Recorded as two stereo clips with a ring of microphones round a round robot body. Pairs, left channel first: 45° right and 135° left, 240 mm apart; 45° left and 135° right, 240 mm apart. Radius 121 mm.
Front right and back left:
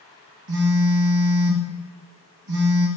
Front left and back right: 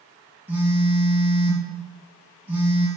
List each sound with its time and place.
0.5 s a phone buzzing: 140° left, 1.8 m